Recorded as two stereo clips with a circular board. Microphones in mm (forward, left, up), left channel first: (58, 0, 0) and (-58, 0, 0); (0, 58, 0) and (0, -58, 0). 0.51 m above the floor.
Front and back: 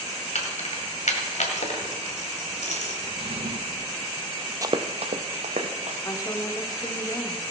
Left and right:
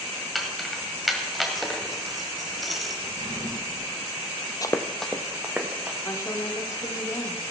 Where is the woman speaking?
40° left, 1.2 m.